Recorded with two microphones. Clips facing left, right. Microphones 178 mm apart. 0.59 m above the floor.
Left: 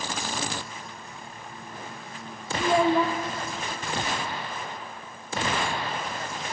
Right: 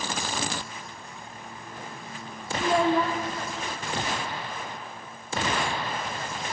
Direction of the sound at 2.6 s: 5° left (ahead or behind).